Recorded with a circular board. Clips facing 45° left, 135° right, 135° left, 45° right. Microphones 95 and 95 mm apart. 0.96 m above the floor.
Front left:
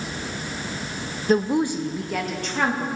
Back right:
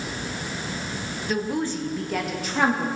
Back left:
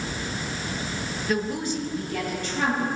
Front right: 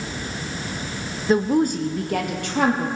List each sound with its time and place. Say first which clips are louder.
1.3 s a woman speaking: front left 6 dB, front right 9 dB; 5° left, 0.7 m; by 2.9 s 60° right, 1.7 m